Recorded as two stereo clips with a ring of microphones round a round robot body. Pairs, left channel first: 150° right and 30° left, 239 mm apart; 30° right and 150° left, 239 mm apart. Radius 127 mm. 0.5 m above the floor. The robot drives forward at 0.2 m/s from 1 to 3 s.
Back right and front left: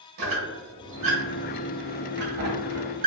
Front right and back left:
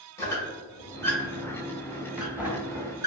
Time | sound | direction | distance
0.2 | a squeak | 50° left | 0.9 m